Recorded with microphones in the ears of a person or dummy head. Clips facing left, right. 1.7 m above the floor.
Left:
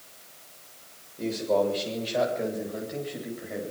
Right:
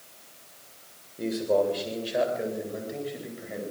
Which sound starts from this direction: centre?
A man speaking, at 1.2 s.